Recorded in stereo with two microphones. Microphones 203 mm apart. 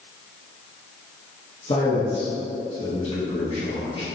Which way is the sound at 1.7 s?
30° left (ahead or behind).